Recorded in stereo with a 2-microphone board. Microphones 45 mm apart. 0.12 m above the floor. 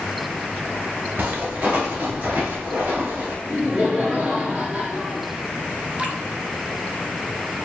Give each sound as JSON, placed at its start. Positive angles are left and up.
{"t": 1.2, "sound": "footsteps", "side_deg": -45, "distance_m": 1.5}
{"t": 3.4, "sound": "laughter", "side_deg": -25, "distance_m": 2.0}
{"t": 6.0, "sound": "dripping", "side_deg": -30, "distance_m": 0.5}